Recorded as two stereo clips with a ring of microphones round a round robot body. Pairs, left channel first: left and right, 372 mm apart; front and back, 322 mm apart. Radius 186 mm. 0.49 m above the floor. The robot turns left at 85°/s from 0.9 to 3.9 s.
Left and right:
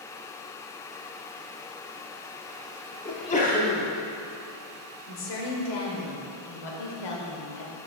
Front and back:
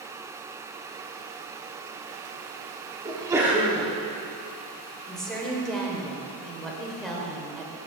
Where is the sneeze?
140° left, 0.9 m; by 3.9 s 70° left, 0.9 m.